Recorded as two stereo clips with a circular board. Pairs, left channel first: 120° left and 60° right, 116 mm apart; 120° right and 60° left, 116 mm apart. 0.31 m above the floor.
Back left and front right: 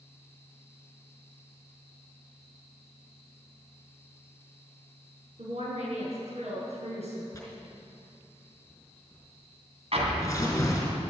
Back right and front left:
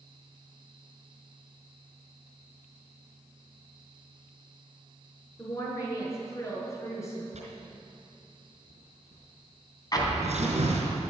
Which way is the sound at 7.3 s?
55° left.